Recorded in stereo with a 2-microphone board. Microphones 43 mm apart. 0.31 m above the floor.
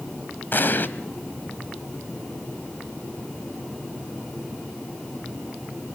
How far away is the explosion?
About 1.6 m.